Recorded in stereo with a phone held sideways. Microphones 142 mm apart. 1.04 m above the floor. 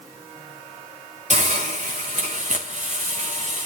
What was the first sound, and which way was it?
A hiss, 55° right (ahead or behind).